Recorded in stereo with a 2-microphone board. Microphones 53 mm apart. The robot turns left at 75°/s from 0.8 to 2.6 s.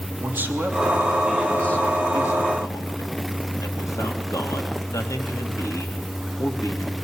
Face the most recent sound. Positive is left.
turn(degrees=85)